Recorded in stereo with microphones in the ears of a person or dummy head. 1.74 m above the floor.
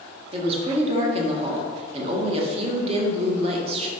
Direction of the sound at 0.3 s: 30° right (ahead or behind).